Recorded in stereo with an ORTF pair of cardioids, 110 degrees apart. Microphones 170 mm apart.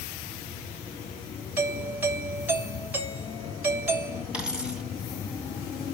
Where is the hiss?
I don't hear a hiss.